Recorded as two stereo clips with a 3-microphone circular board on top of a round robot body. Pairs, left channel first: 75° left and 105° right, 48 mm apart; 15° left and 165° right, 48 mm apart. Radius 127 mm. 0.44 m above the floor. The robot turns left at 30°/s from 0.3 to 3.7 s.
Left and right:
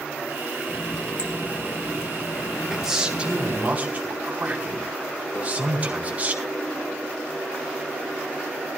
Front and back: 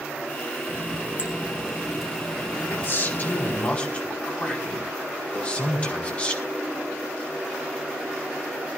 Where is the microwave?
55° left, 2 m.